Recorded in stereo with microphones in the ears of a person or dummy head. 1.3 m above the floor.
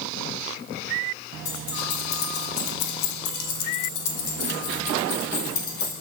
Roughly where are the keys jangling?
Left.